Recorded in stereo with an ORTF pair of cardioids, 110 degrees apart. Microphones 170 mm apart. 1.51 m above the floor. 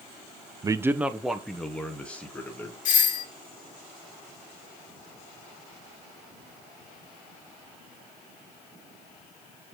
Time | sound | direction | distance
0.6 | a man speaking | 25° right | 0.6 m
2.9 | a doorbell | 55° left | 2 m